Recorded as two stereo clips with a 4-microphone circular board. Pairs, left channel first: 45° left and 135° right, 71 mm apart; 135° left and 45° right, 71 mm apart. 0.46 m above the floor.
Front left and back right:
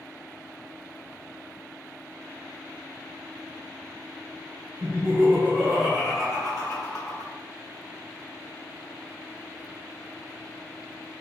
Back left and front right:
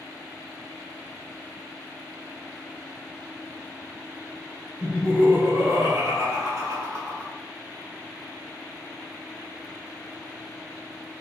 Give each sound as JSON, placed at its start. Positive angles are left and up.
{"t": 4.8, "sound": "laughter", "azimuth_deg": -115, "distance_m": 1.3}